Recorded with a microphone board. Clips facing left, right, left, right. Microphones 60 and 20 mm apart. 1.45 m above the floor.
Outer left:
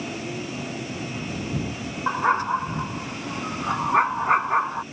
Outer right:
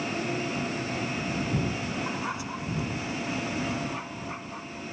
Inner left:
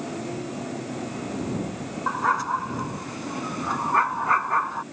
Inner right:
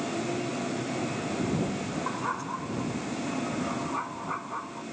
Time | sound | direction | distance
2.1 | a dog barking | 45° left (ahead or behind) | ?